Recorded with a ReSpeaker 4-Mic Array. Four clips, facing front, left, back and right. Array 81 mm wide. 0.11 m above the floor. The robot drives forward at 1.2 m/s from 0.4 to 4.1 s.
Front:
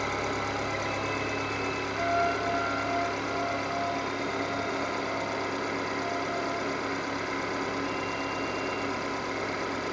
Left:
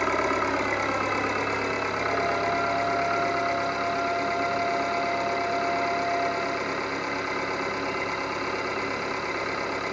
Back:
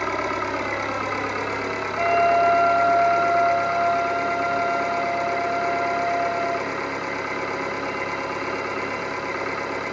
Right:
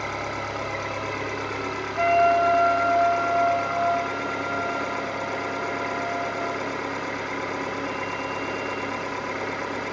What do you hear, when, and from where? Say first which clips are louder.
0.0 s an engine running: left 5 dB, back 6 dB; 120° left, 5 m; by 9.9 s 145° left, 8.5 m
2.0 s a flute: right 11 dB, back 10 dB; 120° right, 0.7 m; by 6.7 s 170° right, 3 m